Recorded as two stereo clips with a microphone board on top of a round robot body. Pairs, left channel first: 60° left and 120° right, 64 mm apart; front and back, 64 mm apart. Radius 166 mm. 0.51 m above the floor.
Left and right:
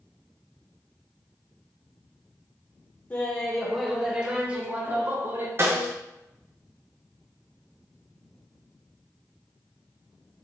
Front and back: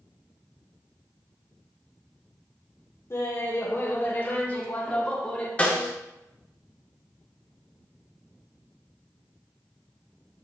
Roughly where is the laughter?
Ahead.